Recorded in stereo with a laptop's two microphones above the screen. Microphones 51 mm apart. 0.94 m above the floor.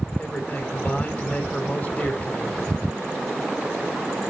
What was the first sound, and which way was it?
A man speaking, 25° left (ahead or behind).